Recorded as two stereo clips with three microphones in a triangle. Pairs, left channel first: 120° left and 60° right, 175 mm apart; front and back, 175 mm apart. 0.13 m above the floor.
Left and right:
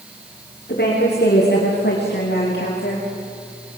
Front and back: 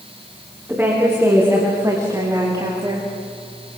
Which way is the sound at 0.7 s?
100° left.